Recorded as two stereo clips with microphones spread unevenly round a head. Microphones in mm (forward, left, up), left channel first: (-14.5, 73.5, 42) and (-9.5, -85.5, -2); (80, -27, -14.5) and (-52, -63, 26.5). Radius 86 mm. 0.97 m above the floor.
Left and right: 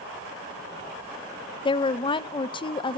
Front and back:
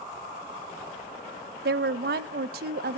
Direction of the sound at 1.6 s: 160° left.